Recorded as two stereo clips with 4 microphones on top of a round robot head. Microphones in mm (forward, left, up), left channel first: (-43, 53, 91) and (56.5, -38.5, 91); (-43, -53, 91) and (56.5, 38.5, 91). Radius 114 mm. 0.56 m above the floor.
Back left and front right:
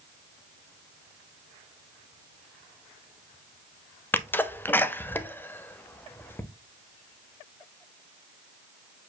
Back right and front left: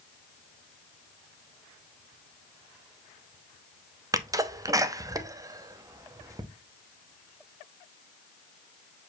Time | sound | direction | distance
4.1 | a sneeze | 80° left | 0.7 m